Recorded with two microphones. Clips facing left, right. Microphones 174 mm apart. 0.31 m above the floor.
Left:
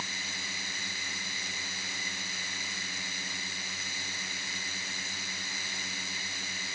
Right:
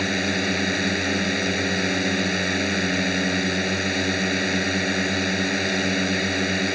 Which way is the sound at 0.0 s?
75° right (ahead or behind).